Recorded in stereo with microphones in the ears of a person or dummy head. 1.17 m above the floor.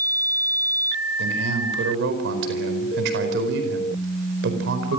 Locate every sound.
1.2 s a man speaking: 75° right (ahead or behind), 5 m